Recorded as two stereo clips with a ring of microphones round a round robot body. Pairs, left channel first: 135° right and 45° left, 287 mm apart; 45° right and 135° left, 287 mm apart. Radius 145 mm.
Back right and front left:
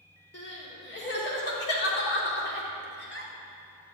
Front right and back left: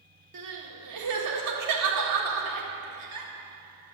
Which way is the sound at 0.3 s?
170° left.